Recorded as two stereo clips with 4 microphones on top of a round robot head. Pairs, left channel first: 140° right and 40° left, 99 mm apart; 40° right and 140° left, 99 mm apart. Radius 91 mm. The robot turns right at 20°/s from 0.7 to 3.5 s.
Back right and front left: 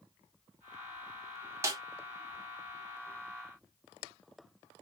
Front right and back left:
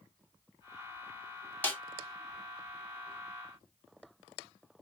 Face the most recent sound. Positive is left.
turn(degrees=55)